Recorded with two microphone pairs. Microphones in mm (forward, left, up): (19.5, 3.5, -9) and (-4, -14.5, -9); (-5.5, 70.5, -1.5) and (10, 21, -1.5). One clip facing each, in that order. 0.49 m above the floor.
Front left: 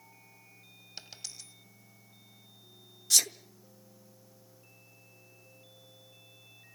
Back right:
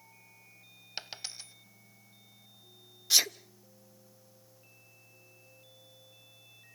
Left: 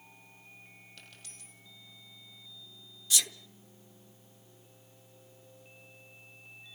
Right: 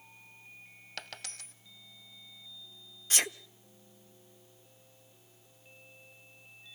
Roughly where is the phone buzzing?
No phone buzzing in this recording.